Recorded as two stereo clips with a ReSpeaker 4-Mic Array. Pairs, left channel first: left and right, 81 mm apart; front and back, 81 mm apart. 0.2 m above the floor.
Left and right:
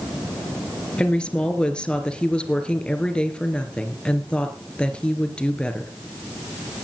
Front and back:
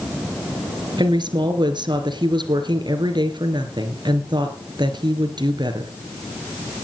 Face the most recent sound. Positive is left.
turn(degrees=170)